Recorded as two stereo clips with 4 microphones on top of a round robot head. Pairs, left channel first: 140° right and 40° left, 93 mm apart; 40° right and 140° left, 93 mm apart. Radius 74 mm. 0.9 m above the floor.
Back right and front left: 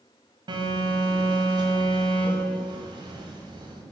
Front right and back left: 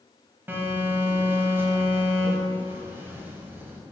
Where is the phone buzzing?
70° left, 1.2 m.